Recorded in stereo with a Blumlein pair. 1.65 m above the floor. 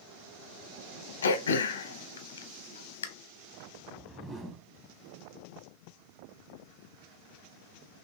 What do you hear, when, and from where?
1.2 s throat clearing: 70° left, 0.7 m
3.8 s a whoosh: 15° right, 1.3 m